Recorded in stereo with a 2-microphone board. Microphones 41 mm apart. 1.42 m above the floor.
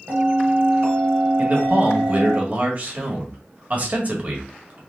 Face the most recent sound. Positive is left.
turn(degrees=-35)  # may be behind; listen again after turning